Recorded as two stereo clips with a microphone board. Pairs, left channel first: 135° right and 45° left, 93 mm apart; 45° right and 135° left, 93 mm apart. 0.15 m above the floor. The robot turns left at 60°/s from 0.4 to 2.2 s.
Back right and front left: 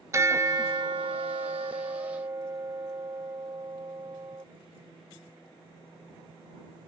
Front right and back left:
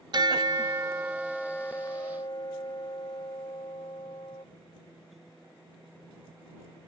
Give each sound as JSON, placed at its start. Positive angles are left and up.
{"t": 0.1, "sound": "a bell", "azimuth_deg": 100}